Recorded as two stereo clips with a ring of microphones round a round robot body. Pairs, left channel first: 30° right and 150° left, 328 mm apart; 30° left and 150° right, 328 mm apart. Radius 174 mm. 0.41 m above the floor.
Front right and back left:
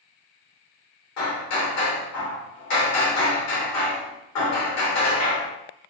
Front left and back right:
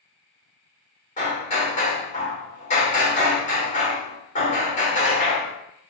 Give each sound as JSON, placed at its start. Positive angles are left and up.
{"t": 1.2, "sound": "hammering", "azimuth_deg": -35, "distance_m": 1.2}